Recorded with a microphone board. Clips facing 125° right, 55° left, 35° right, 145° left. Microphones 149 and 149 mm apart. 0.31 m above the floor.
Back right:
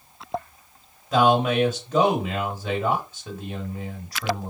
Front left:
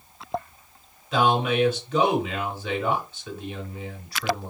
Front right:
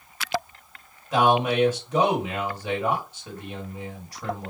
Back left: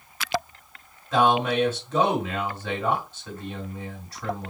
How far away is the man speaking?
About 1.6 m.